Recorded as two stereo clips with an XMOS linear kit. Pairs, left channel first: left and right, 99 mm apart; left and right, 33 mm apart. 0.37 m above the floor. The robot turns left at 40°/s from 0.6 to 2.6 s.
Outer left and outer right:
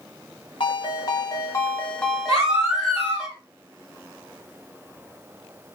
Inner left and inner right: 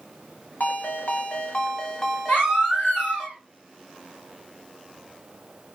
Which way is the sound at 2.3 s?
85° left.